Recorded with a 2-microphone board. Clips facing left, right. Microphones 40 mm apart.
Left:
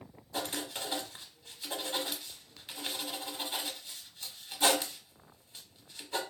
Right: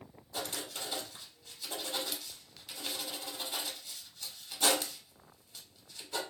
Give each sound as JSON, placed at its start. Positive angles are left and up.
{"t": 0.3, "sound": "writing", "side_deg": 25, "distance_m": 0.8}